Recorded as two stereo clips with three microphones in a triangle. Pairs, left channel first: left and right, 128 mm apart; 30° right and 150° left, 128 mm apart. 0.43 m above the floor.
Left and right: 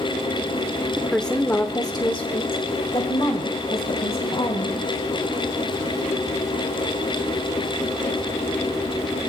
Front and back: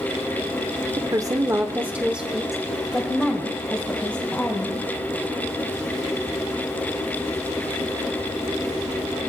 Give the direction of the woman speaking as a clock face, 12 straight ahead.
6 o'clock.